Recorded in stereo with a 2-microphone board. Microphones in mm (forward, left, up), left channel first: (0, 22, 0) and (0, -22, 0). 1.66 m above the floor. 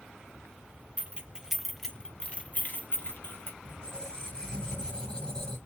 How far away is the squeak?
About 1.8 m.